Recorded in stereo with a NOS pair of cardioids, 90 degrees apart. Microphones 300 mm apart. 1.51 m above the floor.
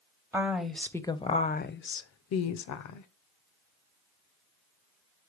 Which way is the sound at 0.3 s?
5° right.